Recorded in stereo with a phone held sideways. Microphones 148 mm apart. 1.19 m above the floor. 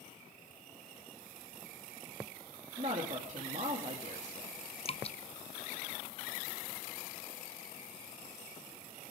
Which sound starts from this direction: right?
A woman speaking, at 2.8 s.